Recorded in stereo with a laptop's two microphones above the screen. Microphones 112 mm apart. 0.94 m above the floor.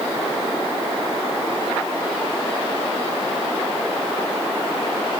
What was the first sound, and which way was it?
Only background noise.